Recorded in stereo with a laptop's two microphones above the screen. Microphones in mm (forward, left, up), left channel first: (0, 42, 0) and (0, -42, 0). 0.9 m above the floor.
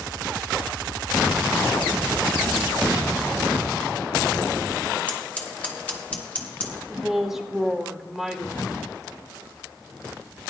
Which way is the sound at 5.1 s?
15° left (ahead or behind).